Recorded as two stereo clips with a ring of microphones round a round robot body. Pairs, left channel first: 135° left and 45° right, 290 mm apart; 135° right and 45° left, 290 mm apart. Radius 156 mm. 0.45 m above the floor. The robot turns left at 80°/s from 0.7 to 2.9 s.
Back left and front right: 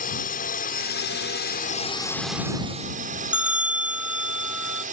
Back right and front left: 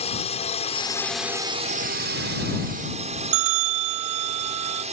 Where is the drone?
170° left; by 4.9 s 5° right.